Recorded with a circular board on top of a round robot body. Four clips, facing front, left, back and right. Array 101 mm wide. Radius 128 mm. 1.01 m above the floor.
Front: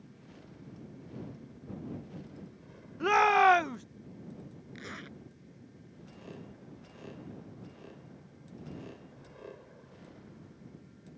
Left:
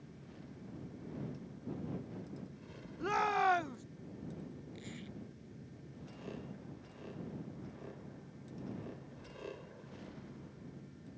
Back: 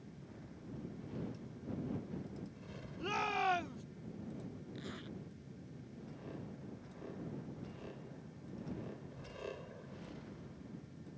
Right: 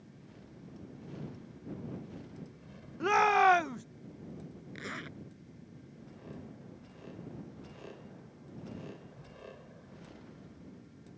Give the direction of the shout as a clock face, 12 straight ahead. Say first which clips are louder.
Right 7 dB, front 13 dB; 1 o'clock.